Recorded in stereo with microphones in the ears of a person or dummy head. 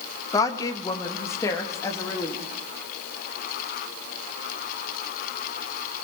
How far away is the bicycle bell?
I don't hear a bicycle bell.